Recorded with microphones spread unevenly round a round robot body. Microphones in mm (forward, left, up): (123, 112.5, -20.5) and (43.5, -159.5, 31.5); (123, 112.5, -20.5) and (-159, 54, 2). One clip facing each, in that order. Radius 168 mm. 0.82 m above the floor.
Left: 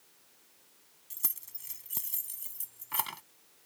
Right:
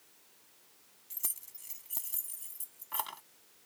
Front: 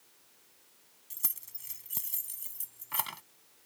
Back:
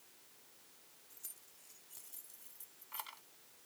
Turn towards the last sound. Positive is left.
turn(degrees=25)